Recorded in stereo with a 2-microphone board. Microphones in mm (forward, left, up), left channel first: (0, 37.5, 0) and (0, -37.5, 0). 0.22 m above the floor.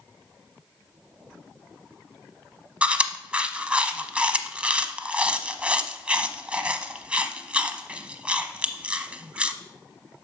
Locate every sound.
2.8 s chewing: 15° right (ahead or behind), 0.8 m